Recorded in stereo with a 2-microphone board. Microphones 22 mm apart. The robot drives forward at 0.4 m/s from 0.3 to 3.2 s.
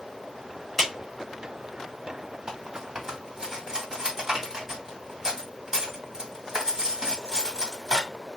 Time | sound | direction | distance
0.8 | a clap | 10° left (ahead or behind) | 1.7 m
2.5 | cutlery clinking | 25° right (ahead or behind) | 2 m